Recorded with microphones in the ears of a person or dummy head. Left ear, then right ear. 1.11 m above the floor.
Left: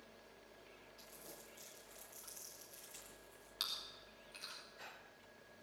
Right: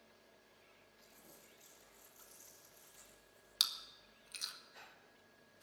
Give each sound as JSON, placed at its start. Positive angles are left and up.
{"t": 1.0, "sound": "crumpling", "side_deg": 45, "distance_m": 10.0}
{"t": 3.6, "sound": "chewing", "side_deg": -45, "distance_m": 1.9}